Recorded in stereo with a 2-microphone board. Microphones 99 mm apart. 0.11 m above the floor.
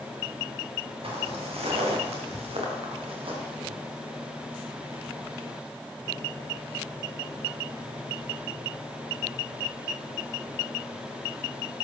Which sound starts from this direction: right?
Footsteps, at 1.0 s.